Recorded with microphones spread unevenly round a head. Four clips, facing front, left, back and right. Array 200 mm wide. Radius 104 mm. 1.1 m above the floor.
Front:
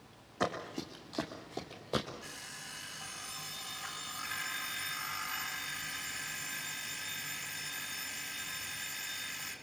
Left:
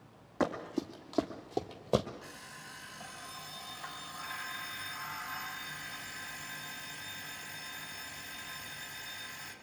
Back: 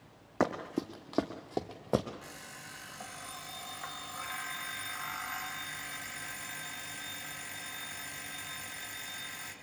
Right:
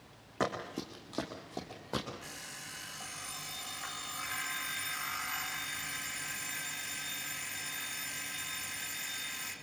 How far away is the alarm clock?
About 4 m.